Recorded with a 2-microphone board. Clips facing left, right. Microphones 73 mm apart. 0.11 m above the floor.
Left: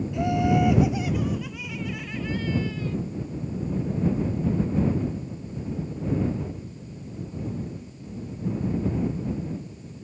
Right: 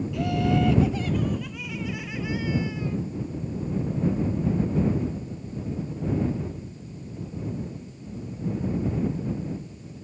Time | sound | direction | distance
0.1 | laughter | 20° left (ahead or behind) | ?